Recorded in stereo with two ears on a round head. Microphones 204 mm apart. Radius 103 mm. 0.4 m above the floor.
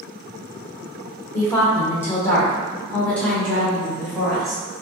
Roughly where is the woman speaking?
Centre.